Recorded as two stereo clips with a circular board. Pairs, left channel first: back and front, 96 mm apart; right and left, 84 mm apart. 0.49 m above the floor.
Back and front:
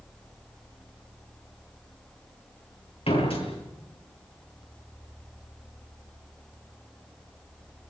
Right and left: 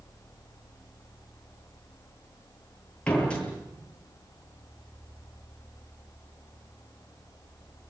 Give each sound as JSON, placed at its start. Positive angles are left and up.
{"t": 3.1, "sound": "a door slam", "azimuth_deg": -165, "distance_m": 8.5}